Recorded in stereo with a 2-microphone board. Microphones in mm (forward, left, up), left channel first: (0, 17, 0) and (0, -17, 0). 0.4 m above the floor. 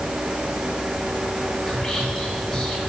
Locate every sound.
1.7 s whispering: 20° left (ahead or behind), 1.8 m